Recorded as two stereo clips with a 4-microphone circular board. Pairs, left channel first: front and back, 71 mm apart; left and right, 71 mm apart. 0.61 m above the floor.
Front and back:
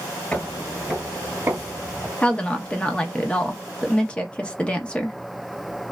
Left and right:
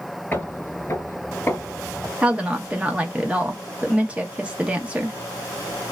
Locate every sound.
0.3 s footsteps: 55° left, 0.7 m; by 2.1 s 150° left, 1.0 m
2.2 s a woman speaking: 50° right, 0.6 m